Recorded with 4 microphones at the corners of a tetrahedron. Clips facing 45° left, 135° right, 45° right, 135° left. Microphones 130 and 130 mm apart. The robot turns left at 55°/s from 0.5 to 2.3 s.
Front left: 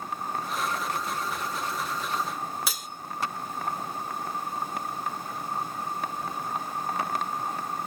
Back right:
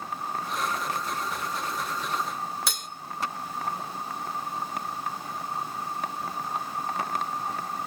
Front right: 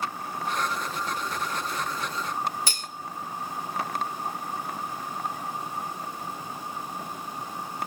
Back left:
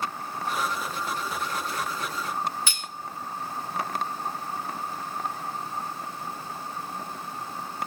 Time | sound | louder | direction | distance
2.7 | cutlery clinking | even, front right 1 dB | 40° right | 0.5 m